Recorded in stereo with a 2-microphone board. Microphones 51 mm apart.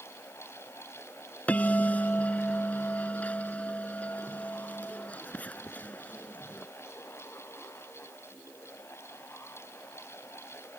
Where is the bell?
30° left (ahead or behind).